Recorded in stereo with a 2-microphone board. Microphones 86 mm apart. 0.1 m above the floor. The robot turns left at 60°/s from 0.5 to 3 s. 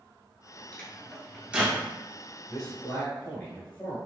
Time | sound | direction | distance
0.7 | a microwave | 15° left (ahead or behind) | 1.1 m
2.5 | a man speaking | 170° left | 1.5 m